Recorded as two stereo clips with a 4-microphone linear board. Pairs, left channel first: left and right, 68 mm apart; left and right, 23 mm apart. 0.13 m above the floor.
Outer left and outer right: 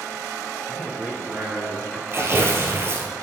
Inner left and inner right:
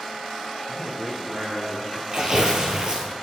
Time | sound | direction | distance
0.7 | a man speaking | 15° right (ahead or behind) | 1.5 m
2.1 | tearing paper | 35° right (ahead or behind) | 1.0 m